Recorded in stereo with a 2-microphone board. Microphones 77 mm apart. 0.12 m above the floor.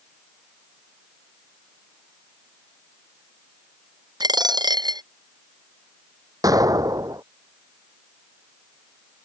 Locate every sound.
4.2 s a dropped coin: 70° right (ahead or behind)
6.4 s an explosion: 55° right (ahead or behind)